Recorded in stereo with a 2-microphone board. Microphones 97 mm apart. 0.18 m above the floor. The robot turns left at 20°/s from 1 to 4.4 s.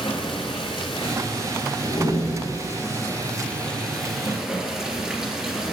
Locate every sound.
0.0 s running water: 60° left, 3 m; by 5.7 s 5° right, 3 m
1.8 s a door slam: 70° left (ahead or behind), 7 m; by 2.7 s 50° left (ahead or behind), 7 m